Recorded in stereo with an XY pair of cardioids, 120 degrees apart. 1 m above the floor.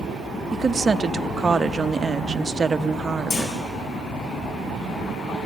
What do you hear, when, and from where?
0.5 s a woman speaking: 25° right, 0.7 m
3.3 s a clunk: 55° left, 8 m